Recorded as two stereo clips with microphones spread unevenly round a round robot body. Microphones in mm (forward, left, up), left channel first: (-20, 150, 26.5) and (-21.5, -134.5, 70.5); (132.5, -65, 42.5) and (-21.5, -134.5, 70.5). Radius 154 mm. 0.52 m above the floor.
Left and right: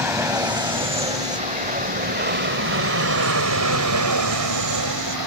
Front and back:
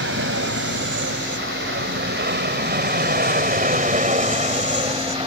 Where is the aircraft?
175° right; by 5.3 s 95° right.